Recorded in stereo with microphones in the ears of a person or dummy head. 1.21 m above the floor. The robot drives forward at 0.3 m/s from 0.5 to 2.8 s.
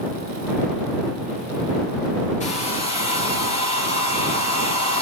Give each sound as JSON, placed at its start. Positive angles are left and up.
{"t": 2.4, "sound": "a hair dryer", "side_deg": 40, "distance_m": 0.6}